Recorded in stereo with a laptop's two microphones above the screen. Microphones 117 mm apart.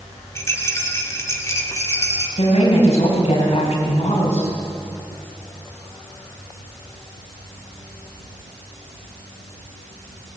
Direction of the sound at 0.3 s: 25° left (ahead or behind).